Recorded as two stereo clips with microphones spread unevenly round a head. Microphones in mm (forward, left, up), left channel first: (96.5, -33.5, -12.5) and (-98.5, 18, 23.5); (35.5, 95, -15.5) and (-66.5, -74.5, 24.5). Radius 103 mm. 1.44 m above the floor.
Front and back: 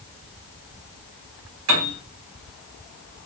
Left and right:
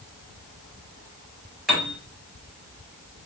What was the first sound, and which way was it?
A piano, 150° left.